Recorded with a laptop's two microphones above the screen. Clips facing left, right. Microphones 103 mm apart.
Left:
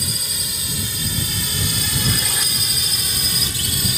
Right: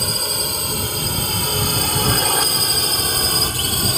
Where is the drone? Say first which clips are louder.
Right 7 dB; 55° right (ahead or behind); by 4.0 s 50° right (ahead or behind).